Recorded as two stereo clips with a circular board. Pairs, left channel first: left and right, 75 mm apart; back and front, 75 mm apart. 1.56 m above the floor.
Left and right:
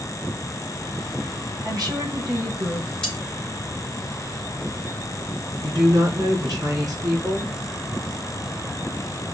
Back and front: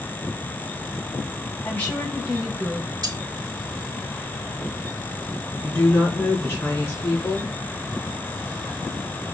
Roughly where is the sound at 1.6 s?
Behind right.